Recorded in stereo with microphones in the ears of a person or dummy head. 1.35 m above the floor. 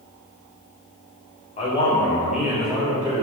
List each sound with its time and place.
1.6 s a man speaking: 45° left (ahead or behind), 0.9 m; by 3.2 s 35° right (ahead or behind), 1.3 m